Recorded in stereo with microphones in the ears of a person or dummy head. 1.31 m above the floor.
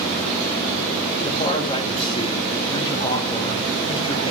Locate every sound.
1.2 s a man speaking: 25° left (ahead or behind), 1.6 m